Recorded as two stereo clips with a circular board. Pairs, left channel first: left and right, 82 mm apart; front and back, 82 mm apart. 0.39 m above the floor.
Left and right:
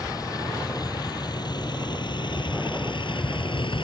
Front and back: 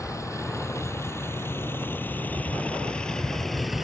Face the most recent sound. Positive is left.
turn(degrees=90)